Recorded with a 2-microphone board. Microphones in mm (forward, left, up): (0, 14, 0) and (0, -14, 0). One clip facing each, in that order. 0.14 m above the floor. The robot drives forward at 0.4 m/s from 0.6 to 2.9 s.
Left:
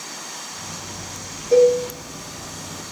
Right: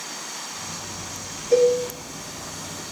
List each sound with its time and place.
1.5 s a cowbell: 45° left (ahead or behind), 6.5 m